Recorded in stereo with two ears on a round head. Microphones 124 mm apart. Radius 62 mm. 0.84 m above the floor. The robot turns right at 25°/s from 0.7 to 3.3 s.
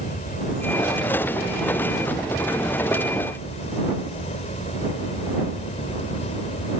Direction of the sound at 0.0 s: 60° left.